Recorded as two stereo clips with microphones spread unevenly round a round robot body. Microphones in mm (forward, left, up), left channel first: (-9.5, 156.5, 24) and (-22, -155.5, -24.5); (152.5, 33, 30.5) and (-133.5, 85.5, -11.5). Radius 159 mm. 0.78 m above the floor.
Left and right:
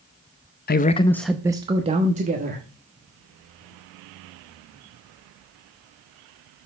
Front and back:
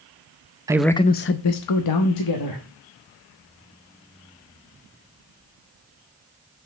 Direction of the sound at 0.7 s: 130° left.